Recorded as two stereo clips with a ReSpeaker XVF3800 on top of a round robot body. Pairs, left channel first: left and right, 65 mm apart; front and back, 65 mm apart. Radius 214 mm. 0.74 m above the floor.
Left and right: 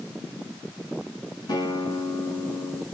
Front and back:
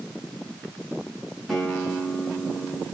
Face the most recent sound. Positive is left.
turn(degrees=85)